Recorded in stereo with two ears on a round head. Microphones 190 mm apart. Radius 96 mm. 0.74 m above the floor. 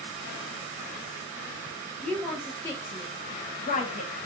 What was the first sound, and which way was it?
A woman speaking, 5° left (ahead or behind).